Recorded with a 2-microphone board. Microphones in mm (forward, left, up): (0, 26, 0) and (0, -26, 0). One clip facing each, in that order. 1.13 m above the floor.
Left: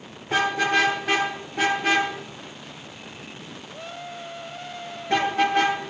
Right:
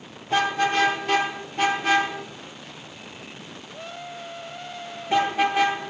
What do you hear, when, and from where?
0.3 s a car horn: 80° left, 9.5 m; by 5.8 s 60° left (ahead or behind), 8 m